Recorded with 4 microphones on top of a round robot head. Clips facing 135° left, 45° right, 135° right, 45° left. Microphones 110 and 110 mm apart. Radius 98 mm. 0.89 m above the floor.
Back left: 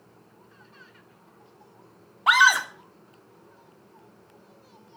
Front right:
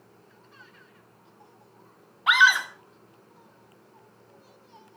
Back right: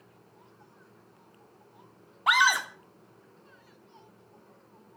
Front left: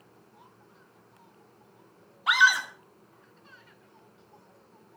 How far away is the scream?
About 3 m.